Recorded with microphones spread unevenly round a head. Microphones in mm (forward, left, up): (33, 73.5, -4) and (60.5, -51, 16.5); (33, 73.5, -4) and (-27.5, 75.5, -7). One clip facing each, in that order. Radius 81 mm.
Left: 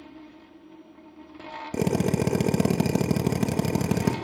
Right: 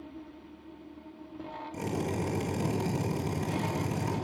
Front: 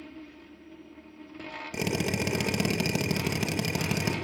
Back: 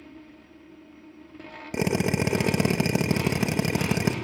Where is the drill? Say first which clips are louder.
Left 9 dB, back 5 dB; 115° left, 1.5 m.